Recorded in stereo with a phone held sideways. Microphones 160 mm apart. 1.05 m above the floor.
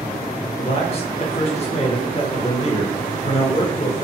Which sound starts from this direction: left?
A man speaking, at 0.6 s.